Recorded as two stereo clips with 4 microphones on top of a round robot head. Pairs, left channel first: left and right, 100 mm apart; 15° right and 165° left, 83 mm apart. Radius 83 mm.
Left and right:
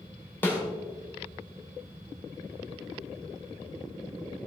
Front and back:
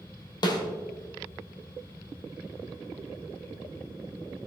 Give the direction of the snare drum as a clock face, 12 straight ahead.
11 o'clock.